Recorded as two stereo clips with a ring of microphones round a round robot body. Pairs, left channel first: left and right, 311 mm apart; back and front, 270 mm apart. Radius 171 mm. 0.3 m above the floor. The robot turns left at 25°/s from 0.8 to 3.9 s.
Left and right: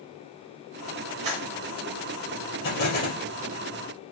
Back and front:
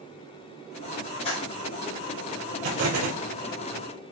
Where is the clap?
105° right, 3.5 m; by 1.5 s 115° right, 3.5 m.